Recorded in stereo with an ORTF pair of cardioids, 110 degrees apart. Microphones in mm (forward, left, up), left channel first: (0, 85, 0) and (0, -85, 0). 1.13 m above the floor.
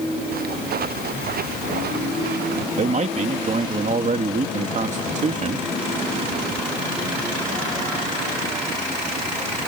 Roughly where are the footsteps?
Ahead right.